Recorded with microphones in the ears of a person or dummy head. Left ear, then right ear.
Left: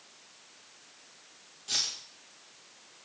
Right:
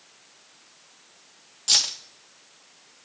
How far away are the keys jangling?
About 1.6 m.